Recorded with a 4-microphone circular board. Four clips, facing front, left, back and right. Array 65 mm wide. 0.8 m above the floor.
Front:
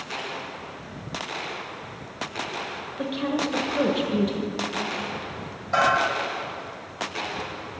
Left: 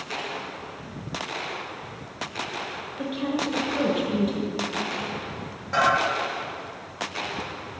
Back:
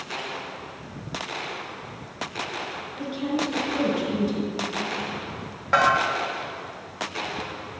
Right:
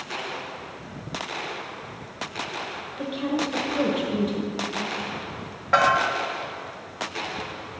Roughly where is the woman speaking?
Ahead.